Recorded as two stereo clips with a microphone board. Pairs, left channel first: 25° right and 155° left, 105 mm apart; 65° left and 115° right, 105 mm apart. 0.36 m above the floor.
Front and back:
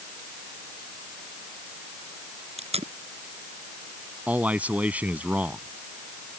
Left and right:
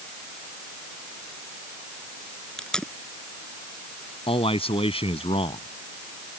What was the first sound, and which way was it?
Tape being pulled, 150° left.